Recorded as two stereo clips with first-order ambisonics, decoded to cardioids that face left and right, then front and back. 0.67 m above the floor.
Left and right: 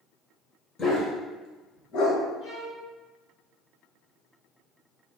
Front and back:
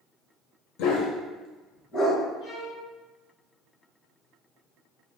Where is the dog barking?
15° left, 1.1 m; by 2.2 s 65° left, 1.5 m.